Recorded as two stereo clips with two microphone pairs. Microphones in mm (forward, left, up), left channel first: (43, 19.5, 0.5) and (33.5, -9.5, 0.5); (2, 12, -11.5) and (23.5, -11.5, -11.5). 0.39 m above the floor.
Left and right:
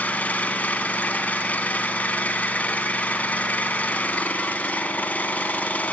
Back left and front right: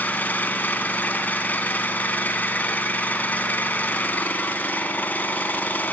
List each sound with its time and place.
0.0 s an engine running: 100° left, 2 m